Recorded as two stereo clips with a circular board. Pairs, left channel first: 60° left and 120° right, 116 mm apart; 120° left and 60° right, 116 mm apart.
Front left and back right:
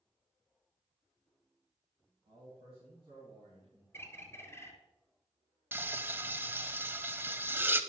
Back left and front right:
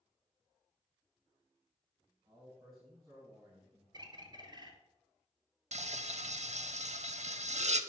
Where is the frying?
50° right, 0.5 m.